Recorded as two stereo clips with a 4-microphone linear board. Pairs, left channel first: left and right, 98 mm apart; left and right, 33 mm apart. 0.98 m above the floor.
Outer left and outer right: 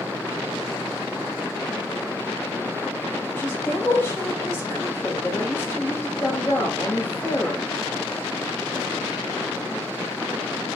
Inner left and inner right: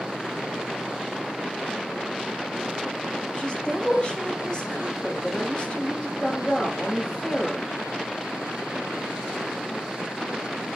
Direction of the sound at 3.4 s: 25° left (ahead or behind).